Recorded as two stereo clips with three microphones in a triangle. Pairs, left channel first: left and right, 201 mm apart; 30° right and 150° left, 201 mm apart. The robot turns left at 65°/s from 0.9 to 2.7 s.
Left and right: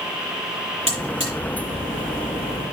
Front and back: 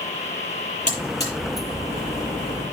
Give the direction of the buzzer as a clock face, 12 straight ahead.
3 o'clock.